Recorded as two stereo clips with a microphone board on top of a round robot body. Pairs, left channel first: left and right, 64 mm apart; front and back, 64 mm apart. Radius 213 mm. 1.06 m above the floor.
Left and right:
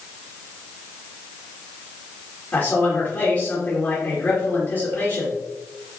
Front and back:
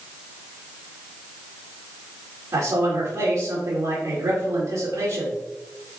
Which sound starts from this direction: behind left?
A man speaking, at 2.5 s.